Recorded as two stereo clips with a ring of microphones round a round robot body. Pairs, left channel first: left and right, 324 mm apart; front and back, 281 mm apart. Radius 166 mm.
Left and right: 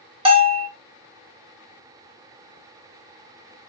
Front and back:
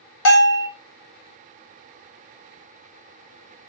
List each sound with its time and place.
0.2 s a bell: 20° right, 1.1 m